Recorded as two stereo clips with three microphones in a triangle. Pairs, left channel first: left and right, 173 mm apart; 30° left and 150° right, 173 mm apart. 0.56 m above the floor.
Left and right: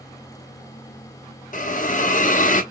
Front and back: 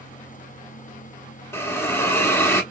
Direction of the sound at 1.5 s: 100° left.